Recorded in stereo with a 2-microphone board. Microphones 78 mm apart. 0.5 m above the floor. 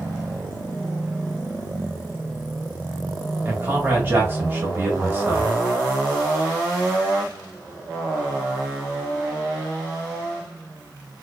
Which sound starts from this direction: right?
A man speaking, at 3.5 s.